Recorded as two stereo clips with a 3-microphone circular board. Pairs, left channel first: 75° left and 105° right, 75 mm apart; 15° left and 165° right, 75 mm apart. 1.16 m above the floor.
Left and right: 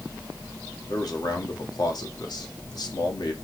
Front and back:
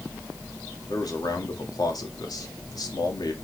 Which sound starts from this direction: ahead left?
A man speaking, at 0.9 s.